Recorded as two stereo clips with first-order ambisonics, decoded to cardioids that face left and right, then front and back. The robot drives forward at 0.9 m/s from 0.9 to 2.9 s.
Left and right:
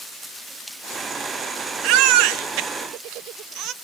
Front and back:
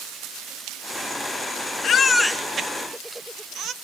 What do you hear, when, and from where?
1.8 s a baby crying: 60° right, 0.8 m; by 3.7 s 130° right, 0.9 m